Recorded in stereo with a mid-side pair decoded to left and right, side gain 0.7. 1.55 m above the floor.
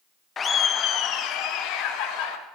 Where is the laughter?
25° left, 0.8 m; by 2.4 s 60° left, 1.9 m.